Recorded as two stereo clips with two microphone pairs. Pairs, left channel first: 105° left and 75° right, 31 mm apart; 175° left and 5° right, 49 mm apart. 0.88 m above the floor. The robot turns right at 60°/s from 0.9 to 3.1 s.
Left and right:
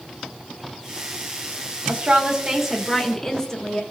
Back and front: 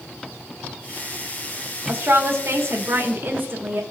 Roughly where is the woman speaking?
Ahead right.